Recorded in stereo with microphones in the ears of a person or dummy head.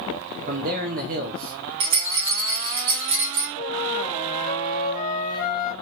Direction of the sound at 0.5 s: 45° right (ahead or behind).